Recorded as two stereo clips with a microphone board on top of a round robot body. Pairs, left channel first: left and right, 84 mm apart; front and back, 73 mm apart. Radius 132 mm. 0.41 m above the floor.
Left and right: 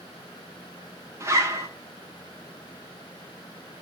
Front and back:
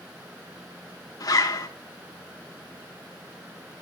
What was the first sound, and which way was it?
A zipper, 30° right.